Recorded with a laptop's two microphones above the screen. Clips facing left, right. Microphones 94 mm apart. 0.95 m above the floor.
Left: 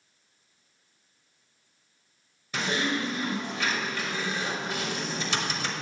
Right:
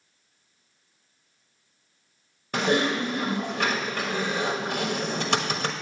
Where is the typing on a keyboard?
55° right (ahead or behind), 1.1 m.